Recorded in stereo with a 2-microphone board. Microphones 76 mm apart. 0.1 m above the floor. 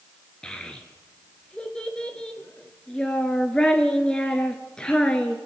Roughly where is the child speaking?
Centre.